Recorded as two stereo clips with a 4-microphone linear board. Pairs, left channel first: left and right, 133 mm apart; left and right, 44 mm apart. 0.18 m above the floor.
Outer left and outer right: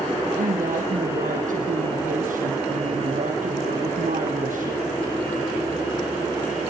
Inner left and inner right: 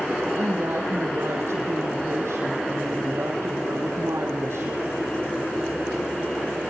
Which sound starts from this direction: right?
A woman speaking, at 0.4 s.